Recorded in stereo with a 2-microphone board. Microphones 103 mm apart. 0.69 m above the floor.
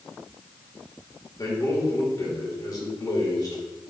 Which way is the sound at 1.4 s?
40° left (ahead or behind).